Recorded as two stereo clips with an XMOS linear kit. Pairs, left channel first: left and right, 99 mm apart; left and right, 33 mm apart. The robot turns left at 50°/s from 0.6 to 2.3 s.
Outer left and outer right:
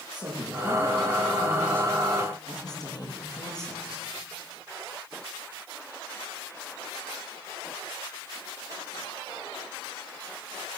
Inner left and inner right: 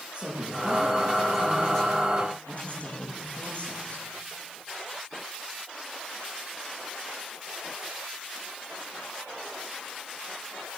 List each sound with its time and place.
0.1 s a woman speaking: 135° right, 10 m; by 4.1 s 140° left, 10 m